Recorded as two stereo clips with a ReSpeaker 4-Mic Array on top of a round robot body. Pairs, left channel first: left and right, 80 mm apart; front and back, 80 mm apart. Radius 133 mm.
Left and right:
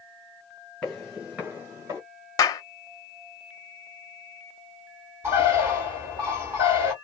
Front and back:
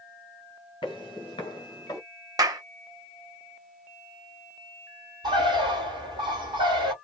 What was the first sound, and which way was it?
Footsteps, 10° left.